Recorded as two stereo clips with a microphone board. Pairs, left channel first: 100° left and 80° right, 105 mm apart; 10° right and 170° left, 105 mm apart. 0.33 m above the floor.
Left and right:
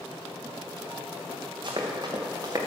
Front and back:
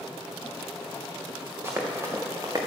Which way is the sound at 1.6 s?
125° right.